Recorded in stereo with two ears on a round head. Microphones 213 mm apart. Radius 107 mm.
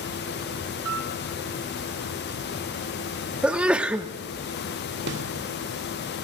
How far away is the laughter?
I don't hear laughter.